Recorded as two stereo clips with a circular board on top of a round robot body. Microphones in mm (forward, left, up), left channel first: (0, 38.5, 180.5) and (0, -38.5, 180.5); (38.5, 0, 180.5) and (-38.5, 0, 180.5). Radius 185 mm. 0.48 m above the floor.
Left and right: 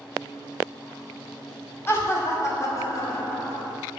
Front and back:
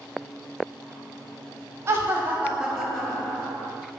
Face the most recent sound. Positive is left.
turn(degrees=60)